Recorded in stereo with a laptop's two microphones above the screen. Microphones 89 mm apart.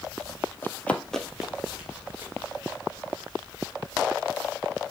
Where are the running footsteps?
25° left (ahead or behind), 1.1 m; by 2.3 s 20° right (ahead or behind), 2 m.